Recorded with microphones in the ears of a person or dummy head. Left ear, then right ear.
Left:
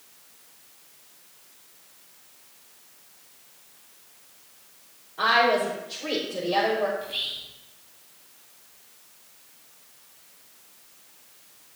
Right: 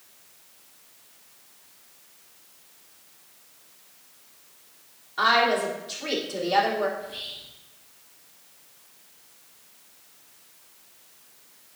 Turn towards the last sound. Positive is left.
turn(degrees=20)  # may be behind; listen again after turning